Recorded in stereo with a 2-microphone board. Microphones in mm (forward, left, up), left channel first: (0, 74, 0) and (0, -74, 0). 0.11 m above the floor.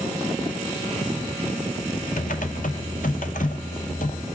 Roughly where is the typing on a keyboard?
Left.